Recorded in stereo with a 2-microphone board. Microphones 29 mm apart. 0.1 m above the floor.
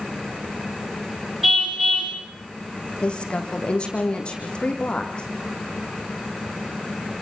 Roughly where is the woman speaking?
Left.